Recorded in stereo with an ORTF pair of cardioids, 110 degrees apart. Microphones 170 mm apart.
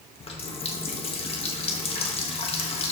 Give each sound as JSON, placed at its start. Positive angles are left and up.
{"t": 0.2, "sound": "a running tap", "azimuth_deg": 35, "distance_m": 1.4}